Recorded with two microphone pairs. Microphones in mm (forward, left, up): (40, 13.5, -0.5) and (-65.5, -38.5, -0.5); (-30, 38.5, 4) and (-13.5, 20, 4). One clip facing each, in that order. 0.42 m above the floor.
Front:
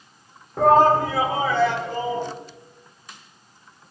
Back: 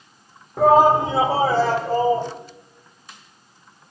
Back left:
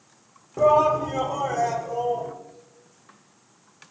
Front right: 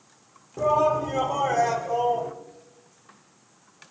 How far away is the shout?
About 0.8 m.